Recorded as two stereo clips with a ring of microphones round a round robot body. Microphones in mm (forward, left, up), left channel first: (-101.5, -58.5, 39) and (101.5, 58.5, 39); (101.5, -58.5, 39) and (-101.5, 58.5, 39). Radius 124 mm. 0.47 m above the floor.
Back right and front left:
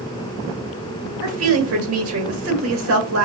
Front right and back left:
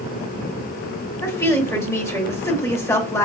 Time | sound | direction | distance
1.2 | a woman speaking | 45° left | 1.9 m